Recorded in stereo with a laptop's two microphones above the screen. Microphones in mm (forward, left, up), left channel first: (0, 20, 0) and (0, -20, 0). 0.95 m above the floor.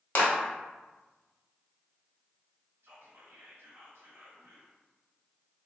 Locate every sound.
0.1 s a clap: 65° left (ahead or behind), 0.9 m
2.8 s whispering: 70° right (ahead or behind), 1.1 m